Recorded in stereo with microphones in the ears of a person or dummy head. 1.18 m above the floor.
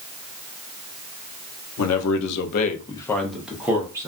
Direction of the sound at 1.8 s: 85° left.